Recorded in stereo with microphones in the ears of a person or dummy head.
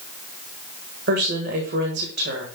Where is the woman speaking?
55° right (ahead or behind), 1.5 m.